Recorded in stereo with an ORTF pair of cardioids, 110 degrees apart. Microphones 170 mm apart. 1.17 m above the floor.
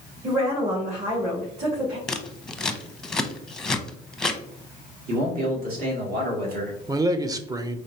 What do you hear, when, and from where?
0.2 s a woman speaking: 45° right, 2.5 m
2.1 s scissors: 5° left, 0.7 m
5.1 s a man speaking: 60° right, 2.5 m
6.9 s a man speaking: 20° right, 0.7 m